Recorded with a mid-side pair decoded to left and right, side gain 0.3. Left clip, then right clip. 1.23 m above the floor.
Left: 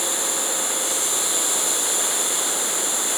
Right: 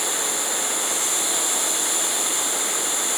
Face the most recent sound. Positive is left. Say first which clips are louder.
# even
turn(degrees=35)